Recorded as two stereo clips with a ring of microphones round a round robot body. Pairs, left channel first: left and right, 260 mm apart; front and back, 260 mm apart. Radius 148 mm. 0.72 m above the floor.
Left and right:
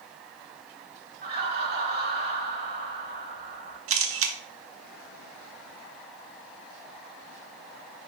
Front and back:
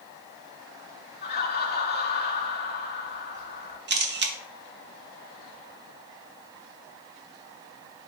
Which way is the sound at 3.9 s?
130° right.